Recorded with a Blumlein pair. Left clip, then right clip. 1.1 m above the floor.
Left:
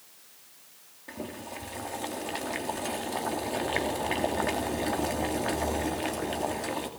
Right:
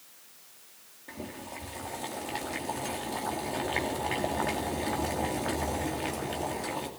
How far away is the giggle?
No giggle in this recording.